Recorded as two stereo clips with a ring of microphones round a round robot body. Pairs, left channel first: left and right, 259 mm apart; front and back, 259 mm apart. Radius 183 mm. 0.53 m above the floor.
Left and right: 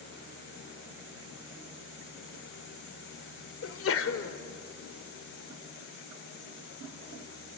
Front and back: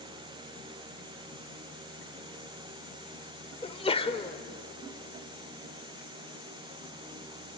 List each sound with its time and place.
3.6 s a sneeze: 65° left, 2 m